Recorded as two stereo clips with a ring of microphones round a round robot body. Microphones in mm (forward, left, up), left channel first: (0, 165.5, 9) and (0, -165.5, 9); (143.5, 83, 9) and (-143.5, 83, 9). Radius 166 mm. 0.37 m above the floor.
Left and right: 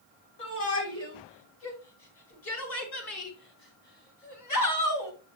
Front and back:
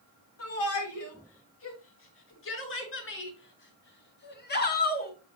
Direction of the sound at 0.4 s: 35° left.